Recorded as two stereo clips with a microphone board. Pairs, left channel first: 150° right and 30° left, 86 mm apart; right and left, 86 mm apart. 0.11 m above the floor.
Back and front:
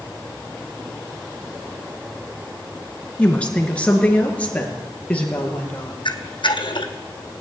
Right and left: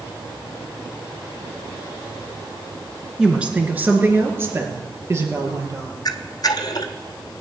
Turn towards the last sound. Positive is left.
turn(degrees=-130)